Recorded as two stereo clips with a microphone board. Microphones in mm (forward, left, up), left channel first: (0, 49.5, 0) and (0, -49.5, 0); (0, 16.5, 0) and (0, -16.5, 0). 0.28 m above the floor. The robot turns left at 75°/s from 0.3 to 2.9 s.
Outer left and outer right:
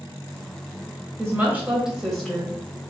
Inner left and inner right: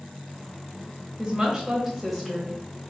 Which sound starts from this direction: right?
A woman speaking, at 1.2 s.